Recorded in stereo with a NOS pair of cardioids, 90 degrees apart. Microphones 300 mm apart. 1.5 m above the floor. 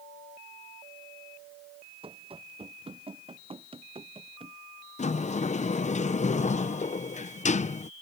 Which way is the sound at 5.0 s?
25° left.